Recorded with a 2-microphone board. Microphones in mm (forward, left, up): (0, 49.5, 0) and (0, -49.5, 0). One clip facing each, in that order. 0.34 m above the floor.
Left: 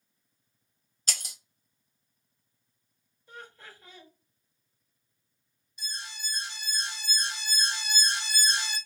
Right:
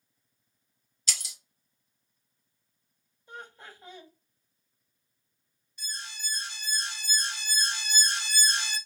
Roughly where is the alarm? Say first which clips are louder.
Left 1 dB; centre.